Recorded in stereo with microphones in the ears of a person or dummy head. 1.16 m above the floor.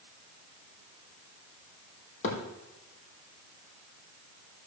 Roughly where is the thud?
Left.